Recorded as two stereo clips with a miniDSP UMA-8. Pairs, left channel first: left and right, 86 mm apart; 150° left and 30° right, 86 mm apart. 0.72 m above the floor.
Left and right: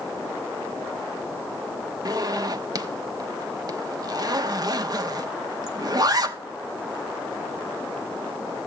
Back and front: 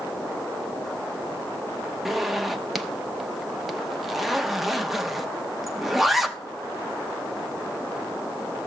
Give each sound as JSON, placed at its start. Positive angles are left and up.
{"t": 2.0, "sound": "a zipper", "azimuth_deg": -115, "distance_m": 0.8}